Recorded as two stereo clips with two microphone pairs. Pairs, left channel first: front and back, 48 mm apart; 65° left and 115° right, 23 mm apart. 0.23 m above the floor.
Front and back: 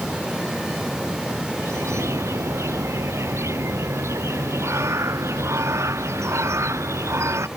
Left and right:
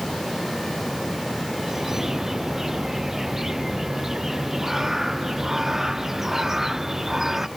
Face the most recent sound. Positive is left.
turn(degrees=175)